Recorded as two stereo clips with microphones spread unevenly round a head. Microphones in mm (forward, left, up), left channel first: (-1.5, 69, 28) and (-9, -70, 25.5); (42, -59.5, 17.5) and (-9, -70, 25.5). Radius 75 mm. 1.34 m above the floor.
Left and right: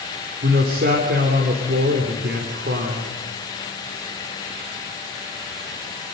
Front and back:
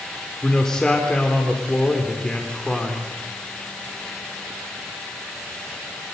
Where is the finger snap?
I don't hear a finger snap.